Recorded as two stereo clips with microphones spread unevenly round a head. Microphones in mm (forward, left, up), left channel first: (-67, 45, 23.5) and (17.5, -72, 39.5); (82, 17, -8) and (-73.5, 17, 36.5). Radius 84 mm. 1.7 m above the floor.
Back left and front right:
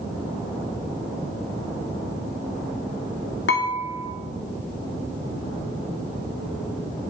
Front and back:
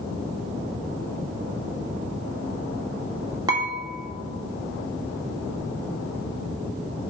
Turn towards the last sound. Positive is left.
turn(degrees=130)